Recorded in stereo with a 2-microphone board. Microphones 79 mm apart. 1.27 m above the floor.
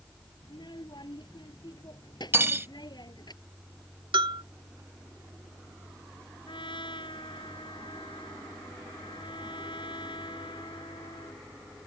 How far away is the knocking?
No knocking in this recording.